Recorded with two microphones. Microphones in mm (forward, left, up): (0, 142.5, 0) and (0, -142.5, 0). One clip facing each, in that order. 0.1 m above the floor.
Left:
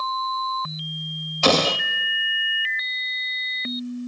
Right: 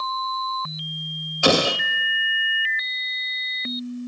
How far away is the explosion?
About 0.8 m.